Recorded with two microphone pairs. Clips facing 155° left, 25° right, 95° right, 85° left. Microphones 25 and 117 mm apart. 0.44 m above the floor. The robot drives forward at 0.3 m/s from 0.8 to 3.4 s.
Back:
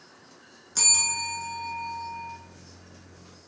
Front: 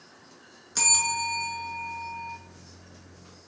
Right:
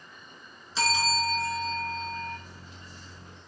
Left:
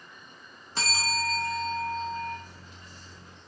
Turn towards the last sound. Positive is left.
turn(degrees=110)